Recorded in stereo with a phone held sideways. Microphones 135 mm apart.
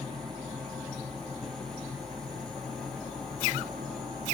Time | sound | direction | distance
0.0 | a machine running | 5° left (ahead or behind) | 0.9 m